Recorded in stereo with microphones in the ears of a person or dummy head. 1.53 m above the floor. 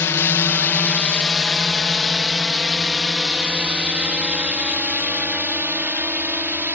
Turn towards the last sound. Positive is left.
turn(degrees=-15)  # may be behind; listen again after turning